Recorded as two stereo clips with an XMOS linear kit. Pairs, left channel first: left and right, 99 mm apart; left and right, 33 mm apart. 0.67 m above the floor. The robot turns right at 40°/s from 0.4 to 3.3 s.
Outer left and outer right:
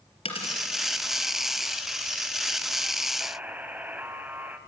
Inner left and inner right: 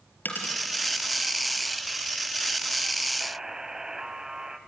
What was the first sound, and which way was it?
A dropped coin, 70° left (ahead or behind).